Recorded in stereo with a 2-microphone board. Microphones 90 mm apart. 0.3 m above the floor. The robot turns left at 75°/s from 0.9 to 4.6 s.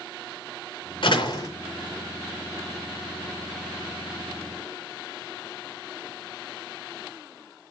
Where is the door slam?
70° left, 3 m; by 1.5 s 35° left, 3 m.